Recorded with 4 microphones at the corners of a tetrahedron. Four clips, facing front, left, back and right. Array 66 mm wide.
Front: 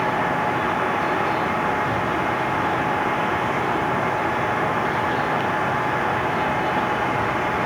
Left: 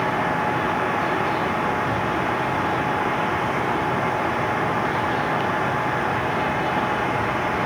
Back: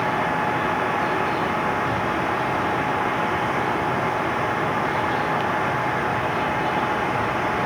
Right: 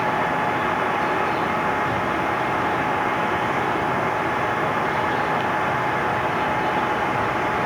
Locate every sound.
Only background noise.